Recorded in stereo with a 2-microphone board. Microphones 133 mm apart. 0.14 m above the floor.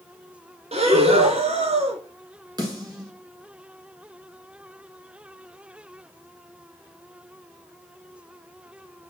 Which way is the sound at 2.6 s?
30° right (ahead or behind).